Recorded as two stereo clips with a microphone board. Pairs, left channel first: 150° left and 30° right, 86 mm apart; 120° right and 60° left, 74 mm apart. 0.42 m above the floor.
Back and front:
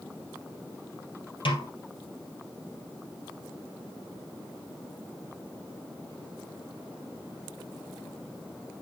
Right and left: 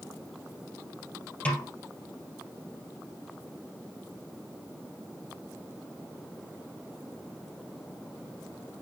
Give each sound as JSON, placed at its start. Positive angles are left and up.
{"t": 1.4, "sound": "a snare drum", "azimuth_deg": 170, "distance_m": 2.5}